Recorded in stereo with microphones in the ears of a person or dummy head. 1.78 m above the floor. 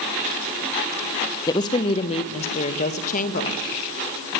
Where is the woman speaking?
20° left (ahead or behind), 1.2 m; by 3.6 s 45° left (ahead or behind), 2 m.